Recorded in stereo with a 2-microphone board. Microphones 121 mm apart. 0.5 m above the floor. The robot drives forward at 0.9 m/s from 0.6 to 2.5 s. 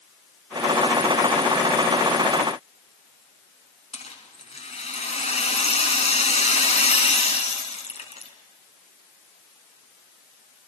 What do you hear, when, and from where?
3.9 s a rattle: 60° left (ahead or behind), 4 m